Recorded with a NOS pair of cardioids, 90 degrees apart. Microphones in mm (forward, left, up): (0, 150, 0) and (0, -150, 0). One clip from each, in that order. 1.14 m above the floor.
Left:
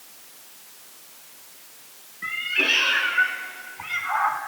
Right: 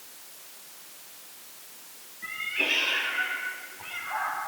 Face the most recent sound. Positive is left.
turn(degrees=75)